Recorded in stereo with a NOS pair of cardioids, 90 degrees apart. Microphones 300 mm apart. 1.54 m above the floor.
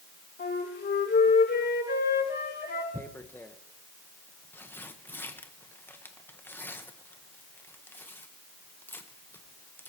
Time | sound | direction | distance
0.4 | a flute | 40° left | 7.5 m
2.9 | tearing paper | 5° left | 1.4 m